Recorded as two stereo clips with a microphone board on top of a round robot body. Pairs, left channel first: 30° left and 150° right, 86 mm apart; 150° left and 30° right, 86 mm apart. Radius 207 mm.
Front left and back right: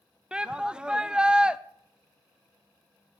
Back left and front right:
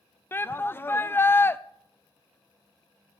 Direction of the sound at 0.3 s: 145° left.